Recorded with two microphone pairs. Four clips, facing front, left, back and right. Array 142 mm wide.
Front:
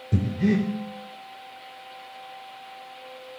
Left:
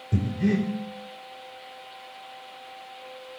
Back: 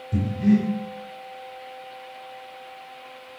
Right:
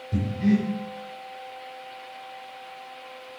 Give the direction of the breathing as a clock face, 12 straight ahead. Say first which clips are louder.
Right 2 dB, back 3 dB; 11 o'clock.